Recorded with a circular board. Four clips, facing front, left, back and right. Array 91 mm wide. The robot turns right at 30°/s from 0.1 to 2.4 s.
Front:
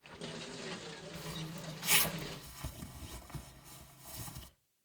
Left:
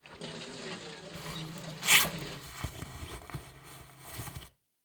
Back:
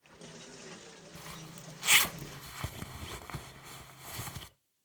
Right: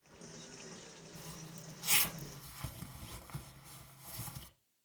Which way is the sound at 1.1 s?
110° left.